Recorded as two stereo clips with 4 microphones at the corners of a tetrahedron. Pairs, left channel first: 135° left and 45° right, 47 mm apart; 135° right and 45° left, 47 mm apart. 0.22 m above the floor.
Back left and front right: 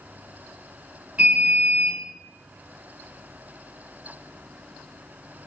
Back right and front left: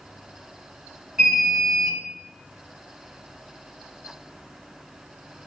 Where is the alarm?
15° right, 1.9 m.